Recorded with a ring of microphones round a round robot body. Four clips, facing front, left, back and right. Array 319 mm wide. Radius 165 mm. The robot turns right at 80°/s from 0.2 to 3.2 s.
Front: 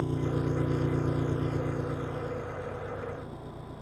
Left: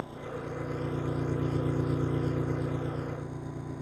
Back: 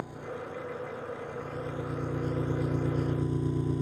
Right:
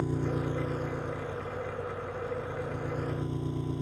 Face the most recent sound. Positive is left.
turn(degrees=-165)